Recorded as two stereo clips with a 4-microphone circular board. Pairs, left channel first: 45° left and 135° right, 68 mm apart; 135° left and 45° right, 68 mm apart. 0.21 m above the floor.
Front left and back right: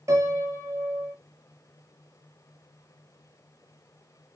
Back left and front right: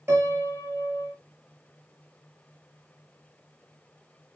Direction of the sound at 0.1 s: 100° right.